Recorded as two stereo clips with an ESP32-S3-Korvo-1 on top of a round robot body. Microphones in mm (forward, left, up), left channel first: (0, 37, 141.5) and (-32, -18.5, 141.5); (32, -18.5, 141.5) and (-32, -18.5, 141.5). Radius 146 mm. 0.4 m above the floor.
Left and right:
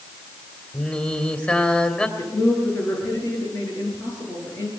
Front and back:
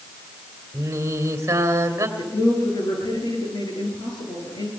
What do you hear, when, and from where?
0.7 s singing: 130° left, 2.5 m
2.2 s a man speaking: 5° left, 10 m